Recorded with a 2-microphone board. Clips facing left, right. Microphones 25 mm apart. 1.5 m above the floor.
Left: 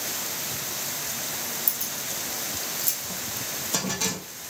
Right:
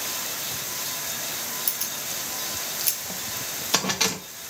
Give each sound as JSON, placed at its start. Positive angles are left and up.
{"t": 1.7, "sound": "keys jangling", "side_deg": -50, "distance_m": 1.4}